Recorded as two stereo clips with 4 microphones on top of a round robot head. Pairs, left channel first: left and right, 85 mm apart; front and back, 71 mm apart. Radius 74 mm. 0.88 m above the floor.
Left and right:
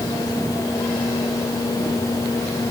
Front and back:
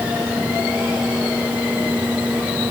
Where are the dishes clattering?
I don't hear dishes clattering.